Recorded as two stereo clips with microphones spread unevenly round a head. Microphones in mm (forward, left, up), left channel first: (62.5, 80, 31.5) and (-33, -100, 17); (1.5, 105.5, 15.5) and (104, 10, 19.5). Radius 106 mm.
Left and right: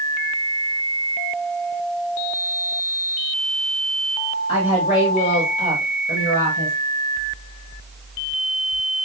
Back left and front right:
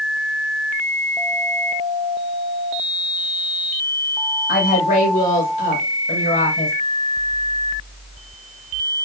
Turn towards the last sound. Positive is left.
turn(degrees=110)